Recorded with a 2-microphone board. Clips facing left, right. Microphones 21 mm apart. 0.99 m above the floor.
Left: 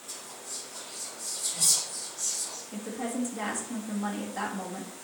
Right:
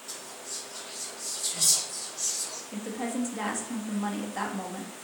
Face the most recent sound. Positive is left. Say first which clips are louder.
# right 1 dB
turn(degrees=-15)  # may be behind; listen again after turning